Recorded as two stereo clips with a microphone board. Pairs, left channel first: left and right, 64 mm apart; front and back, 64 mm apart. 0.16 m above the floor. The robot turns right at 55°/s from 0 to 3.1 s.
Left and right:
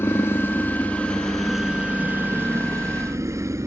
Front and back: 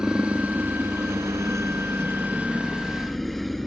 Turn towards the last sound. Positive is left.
turn(degrees=-85)